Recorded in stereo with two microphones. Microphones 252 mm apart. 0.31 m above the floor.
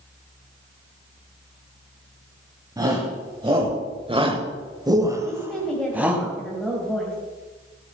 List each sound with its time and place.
2.8 s a shout: 15° right (ahead or behind), 1.6 m; by 6.2 s 5° right (ahead or behind), 1.9 m
5.2 s a woman speaking: centre (ahead or behind), 1.8 m